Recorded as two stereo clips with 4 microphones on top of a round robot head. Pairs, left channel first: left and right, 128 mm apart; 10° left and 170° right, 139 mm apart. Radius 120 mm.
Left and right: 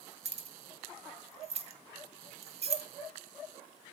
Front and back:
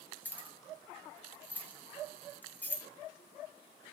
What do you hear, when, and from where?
0.2 s keys jangling: 70° right, 1.0 m